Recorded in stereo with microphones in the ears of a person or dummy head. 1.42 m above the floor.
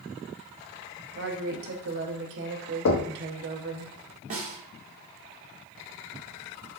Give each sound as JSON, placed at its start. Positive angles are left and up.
{"t": 1.1, "sound": "a woman speaking", "side_deg": -65, "distance_m": 0.7}
{"t": 2.9, "sound": "knocking", "side_deg": 75, "distance_m": 0.6}
{"t": 4.3, "sound": "a snare drum", "side_deg": -45, "distance_m": 0.6}